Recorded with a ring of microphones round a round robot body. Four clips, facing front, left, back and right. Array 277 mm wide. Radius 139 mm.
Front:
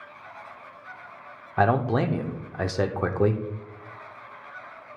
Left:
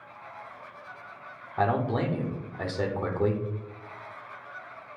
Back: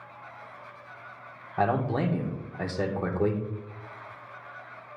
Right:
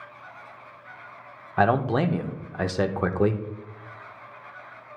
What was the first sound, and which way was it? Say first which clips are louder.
A man speaking: right 5 dB, front 4 dB; 55° right.